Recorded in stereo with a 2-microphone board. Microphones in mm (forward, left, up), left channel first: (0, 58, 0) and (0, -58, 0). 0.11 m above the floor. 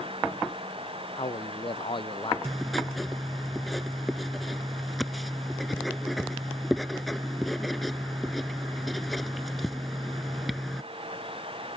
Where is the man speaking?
45° left (ahead or behind).